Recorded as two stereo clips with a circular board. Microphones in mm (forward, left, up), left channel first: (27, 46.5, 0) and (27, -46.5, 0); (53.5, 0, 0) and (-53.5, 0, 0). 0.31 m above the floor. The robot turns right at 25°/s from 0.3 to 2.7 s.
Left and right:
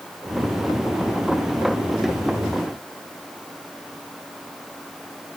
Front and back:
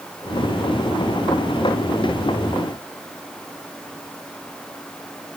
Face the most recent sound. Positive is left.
No sound to turn to.